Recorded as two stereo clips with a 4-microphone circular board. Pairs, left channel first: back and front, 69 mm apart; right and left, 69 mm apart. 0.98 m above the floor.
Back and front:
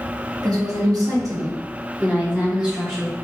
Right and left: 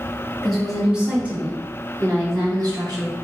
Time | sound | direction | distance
0.4 | a woman speaking | 5° right | 1.2 m